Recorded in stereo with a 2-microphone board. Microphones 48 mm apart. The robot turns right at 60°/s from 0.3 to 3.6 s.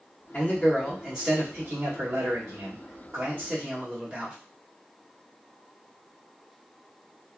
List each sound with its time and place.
0.3 s a man speaking: 145° left, 1.5 m; by 4.3 s 20° right, 1.5 m